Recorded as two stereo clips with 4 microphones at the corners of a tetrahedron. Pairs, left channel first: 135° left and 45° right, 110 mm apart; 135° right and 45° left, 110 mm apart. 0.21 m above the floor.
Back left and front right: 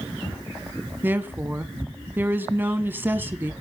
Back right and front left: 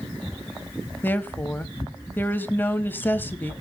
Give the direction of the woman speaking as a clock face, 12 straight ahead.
3 o'clock.